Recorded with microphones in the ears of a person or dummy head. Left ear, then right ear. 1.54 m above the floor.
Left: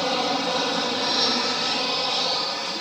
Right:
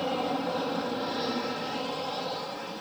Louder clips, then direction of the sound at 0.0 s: Left 6 dB; 60° left (ahead or behind).